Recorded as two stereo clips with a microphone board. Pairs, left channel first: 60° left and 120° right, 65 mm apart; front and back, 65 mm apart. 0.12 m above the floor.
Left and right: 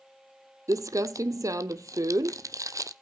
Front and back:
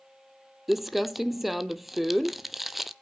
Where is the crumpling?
95° right, 0.6 m.